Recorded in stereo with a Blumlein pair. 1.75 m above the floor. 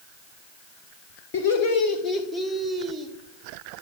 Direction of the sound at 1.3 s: 45° left.